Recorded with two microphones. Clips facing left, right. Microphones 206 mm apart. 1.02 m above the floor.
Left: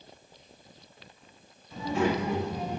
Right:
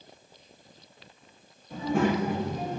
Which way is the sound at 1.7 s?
55° right (ahead or behind).